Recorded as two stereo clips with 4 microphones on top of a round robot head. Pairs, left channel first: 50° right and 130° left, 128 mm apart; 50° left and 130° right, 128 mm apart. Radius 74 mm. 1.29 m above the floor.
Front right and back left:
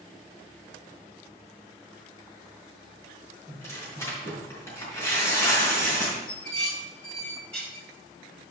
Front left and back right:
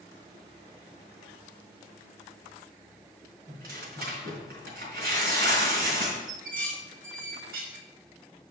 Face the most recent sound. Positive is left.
turn(degrees=-135)